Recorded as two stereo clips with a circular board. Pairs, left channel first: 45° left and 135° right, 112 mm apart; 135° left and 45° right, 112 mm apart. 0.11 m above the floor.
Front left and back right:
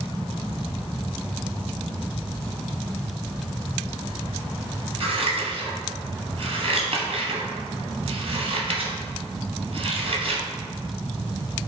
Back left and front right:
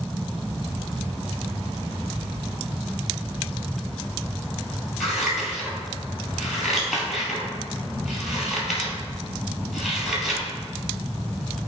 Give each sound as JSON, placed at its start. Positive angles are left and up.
{"t": 5.0, "sound": "scissors", "azimuth_deg": -130, "distance_m": 0.8}